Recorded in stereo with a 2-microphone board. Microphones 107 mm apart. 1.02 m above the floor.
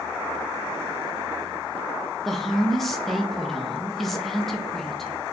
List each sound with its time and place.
2.2 s a woman speaking: centre (ahead or behind), 0.5 m